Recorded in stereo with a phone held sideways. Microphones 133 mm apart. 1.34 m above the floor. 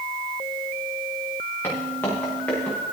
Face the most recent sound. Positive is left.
turn(degrees=5)  # may be behind; listen again after turning